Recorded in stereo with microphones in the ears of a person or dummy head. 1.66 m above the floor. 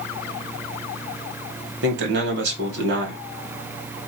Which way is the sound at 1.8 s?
65° right (ahead or behind).